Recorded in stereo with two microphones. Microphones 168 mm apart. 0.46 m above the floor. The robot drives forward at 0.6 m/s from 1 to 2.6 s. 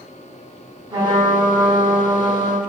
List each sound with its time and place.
0.9 s a trumpet: 25° right (ahead or behind), 1.7 m; by 2.6 s 50° right (ahead or behind), 1.0 m